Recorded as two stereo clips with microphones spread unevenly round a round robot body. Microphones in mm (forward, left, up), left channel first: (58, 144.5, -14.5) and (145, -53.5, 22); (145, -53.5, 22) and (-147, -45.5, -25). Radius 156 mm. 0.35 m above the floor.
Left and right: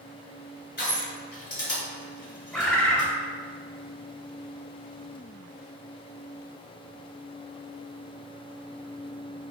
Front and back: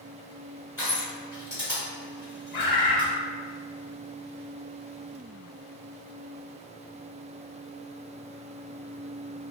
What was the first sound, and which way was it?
Crushing, 90° left.